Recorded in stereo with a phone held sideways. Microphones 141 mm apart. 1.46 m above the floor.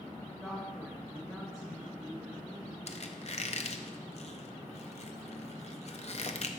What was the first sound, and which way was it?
A woman speaking, centre (ahead or behind).